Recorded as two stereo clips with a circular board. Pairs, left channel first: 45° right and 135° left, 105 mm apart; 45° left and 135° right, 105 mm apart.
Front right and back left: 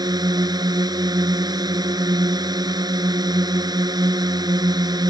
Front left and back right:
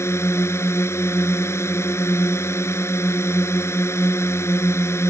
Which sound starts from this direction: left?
A drone, at 0.0 s.